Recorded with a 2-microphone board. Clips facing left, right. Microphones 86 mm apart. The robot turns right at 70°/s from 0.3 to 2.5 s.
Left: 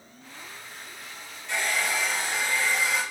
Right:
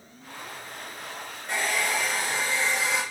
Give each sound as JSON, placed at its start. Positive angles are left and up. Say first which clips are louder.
{"t": 1.5, "sound": "a hair dryer", "louder": "right 1 dB", "azimuth_deg": -115, "distance_m": 2.5}